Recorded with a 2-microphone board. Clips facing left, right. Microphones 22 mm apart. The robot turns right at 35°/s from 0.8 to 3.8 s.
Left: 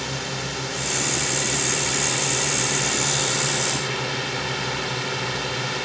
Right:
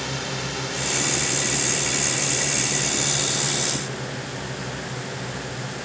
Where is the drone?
5° left; by 5.9 s 110° left.